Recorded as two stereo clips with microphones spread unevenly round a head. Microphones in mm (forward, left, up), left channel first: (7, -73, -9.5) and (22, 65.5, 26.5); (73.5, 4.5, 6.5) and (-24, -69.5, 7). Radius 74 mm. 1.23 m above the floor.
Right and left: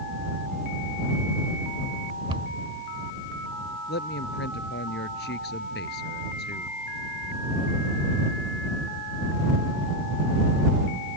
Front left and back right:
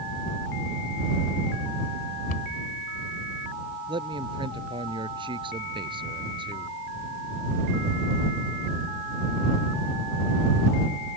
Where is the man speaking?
95° right.